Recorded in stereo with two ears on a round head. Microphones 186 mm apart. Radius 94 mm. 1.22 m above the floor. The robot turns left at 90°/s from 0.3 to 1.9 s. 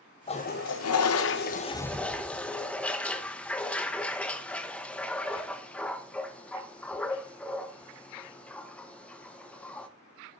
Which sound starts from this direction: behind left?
A toilet flushing, at 0.3 s.